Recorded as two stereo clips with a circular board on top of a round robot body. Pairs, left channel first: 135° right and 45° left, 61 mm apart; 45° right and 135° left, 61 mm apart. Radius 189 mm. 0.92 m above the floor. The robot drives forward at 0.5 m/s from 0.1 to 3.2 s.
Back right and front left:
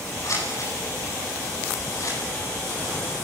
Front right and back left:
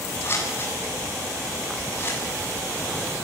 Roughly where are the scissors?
Right.